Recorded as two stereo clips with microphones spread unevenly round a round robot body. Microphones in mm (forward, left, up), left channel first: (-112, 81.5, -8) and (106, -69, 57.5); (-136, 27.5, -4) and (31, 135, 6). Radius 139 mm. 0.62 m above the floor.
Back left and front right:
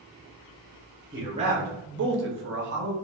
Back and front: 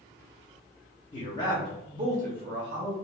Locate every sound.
1.1 s a man speaking: 125° right, 0.8 m; by 2.9 s 20° left, 1.2 m